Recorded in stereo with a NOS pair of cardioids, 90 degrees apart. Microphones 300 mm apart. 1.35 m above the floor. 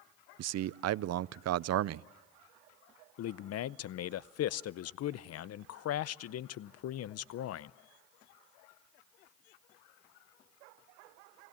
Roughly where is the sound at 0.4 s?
Ahead right.